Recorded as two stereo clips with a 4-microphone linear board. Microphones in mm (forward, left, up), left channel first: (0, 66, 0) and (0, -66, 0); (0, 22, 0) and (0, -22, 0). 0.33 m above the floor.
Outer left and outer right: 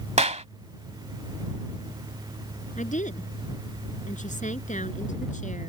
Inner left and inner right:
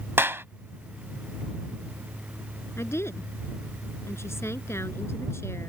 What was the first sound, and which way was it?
A clap, 60° right (ahead or behind).